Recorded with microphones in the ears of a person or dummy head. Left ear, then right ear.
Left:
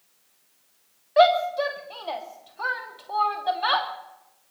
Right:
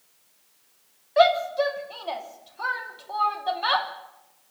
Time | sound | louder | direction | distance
1.2 | a shout | left 1 dB | 10° left (ahead or behind) | 3 m